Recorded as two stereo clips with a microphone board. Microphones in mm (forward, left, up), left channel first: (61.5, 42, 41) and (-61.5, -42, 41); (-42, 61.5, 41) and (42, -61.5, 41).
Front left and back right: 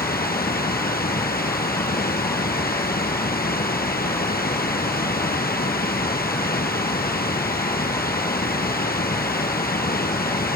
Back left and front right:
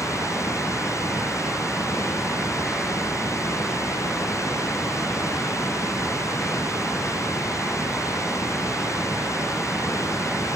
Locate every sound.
0.0 s running water: 55° left